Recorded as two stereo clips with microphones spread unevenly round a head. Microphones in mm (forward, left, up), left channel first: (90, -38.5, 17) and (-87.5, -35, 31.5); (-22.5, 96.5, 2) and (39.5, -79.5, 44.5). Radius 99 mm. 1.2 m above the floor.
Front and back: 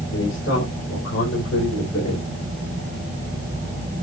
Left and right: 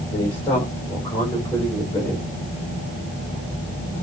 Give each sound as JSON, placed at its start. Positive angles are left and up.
{"t": 0.1, "sound": "a man speaking", "azimuth_deg": 35, "distance_m": 4.5}